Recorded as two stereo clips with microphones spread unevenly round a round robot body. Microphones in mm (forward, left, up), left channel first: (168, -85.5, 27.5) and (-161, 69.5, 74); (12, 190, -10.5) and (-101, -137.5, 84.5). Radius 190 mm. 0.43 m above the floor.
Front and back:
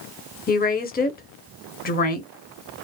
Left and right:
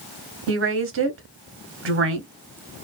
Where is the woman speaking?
55° right, 1.0 m.